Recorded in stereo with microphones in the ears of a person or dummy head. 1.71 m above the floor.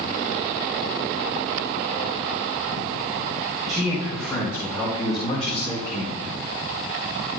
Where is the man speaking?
5° left (ahead or behind), 4 m; by 6.3 s 65° left (ahead or behind), 3.5 m.